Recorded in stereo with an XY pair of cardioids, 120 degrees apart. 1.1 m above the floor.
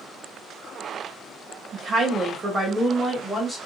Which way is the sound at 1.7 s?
50° right.